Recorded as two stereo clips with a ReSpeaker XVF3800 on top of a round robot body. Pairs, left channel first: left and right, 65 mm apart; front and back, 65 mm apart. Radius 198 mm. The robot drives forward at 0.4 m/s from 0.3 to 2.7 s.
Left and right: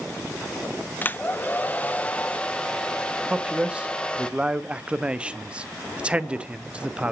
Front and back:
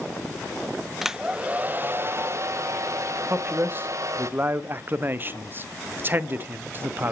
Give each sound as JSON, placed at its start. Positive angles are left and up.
{"t": 1.0, "sound": "a hair dryer", "azimuth_deg": 100, "distance_m": 0.7}
{"t": 3.3, "sound": "a man speaking", "azimuth_deg": -155, "distance_m": 0.9}